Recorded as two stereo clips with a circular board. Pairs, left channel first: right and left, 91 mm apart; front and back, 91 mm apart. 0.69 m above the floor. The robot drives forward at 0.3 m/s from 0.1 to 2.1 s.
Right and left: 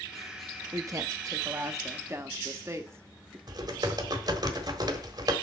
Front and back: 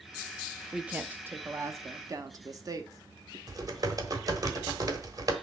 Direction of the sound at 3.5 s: 130° left.